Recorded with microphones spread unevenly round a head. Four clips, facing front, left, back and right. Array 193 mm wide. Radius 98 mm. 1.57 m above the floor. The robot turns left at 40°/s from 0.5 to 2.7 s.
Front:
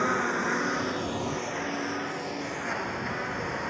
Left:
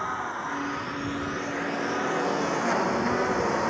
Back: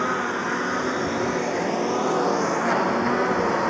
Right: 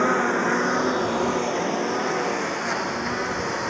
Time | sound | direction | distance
0.0 | a lawn mower | 95° right | ?